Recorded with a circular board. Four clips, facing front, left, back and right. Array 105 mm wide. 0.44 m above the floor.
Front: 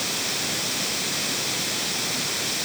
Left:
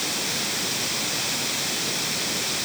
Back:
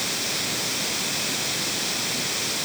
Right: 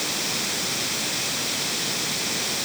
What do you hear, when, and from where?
Only background noise.